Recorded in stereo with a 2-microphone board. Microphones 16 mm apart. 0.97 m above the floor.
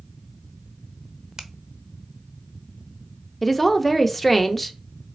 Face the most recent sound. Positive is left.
turn(degrees=15)  # may be behind; listen again after turning